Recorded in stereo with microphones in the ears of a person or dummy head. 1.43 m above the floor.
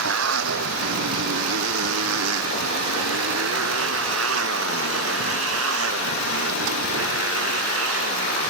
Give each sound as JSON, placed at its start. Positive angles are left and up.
{"t": 0.0, "sound": "a motorcycle", "side_deg": -80}